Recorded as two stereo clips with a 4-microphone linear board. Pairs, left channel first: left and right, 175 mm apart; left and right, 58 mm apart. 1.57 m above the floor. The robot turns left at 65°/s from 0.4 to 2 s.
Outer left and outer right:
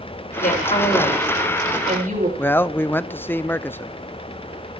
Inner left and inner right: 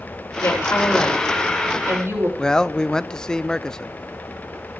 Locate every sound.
0.4 s a woman speaking: 60° left, 7.5 m; by 2.3 s 45° right, 7.5 m
2.4 s a man speaking: 10° left (ahead or behind), 0.6 m